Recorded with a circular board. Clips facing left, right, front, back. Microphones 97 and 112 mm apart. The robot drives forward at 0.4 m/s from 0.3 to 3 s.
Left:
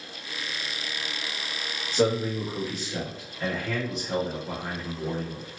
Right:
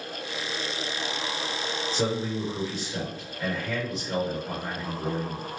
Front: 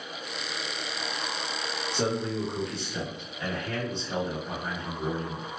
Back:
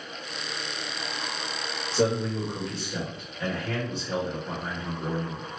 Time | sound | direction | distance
1.9 | a man speaking | 160° left | 1.8 m